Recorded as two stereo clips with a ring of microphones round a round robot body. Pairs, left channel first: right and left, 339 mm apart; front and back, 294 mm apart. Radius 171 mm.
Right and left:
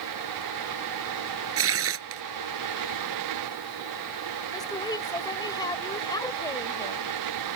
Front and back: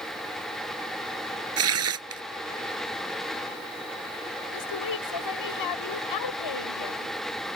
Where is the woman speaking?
10° right.